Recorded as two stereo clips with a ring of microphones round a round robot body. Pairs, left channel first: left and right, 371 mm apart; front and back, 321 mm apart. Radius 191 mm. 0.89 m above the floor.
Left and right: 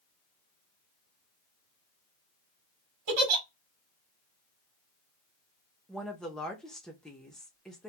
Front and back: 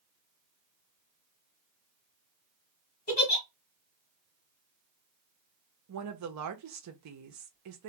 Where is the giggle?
65° right, 1.3 m.